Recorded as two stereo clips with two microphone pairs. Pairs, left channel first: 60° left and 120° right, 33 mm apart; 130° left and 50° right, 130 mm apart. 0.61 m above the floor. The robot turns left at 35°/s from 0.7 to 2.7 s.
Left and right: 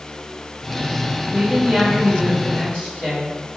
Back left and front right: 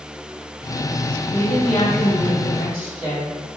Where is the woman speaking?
135° left, 1.8 m; by 3.4 s 85° left, 1.8 m.